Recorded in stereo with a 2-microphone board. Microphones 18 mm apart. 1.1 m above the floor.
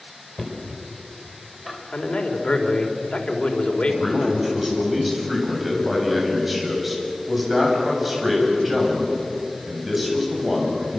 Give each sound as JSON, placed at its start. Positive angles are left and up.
{"t": 0.4, "sound": "knocking", "side_deg": 0, "distance_m": 4.5}
{"t": 1.9, "sound": "a man speaking", "side_deg": 70, "distance_m": 4.0}
{"t": 3.9, "sound": "a man speaking", "side_deg": -5, "distance_m": 8.5}